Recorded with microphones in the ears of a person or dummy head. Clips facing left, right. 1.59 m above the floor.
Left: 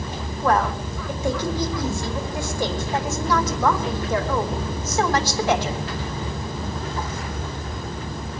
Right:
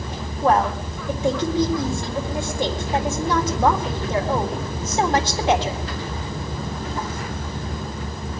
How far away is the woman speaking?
About 3.5 m.